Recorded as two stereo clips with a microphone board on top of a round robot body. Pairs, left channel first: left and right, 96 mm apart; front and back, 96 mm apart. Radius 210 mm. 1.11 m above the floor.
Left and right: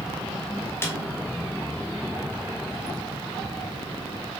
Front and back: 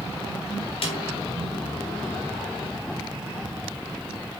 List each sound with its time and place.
0.8 s a snare drum: 25° left, 1.3 m